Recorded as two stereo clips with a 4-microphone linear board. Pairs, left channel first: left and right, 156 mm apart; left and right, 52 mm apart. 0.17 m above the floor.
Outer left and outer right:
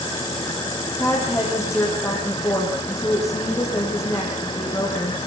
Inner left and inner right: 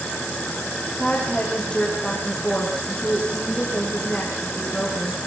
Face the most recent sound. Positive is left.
turn(degrees=20)  # may be behind; listen again after turning